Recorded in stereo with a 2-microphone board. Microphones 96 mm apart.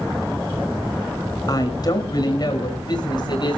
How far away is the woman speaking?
About 6 m.